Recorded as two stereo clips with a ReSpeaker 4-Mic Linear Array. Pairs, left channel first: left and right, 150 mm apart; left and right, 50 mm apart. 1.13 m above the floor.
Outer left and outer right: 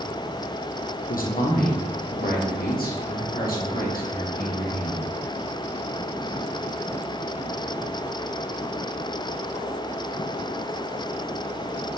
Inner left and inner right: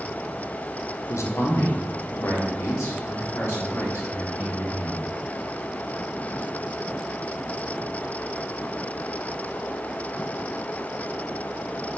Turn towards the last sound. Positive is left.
turn(degrees=75)  # may be behind; listen again after turning